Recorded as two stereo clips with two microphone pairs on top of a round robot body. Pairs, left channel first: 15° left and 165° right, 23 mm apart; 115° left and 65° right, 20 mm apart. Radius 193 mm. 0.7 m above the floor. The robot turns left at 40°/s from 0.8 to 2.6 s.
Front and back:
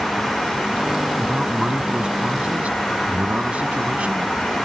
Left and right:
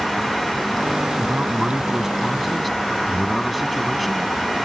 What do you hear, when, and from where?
1.2 s a man speaking: 100° right; by 4.3 s 155° right